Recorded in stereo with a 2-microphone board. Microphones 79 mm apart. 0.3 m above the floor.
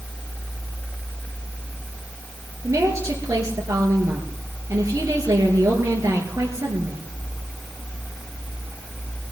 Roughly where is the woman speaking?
Right.